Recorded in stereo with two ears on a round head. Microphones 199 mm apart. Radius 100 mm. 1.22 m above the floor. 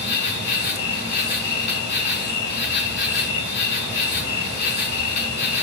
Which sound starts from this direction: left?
An insect, at 0.0 s.